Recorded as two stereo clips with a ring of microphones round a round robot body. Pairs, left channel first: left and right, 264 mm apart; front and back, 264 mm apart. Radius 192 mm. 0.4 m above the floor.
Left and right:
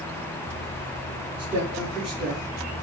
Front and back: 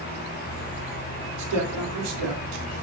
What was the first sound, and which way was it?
A woman speaking, 175° right.